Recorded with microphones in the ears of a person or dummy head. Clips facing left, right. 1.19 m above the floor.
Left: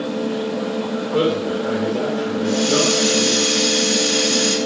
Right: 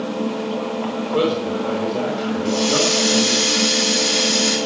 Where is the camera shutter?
I don't hear a camera shutter.